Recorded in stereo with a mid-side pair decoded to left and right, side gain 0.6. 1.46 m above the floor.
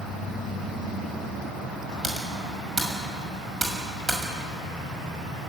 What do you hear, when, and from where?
2.0 s typing on a keyboard: 15° right, 6 m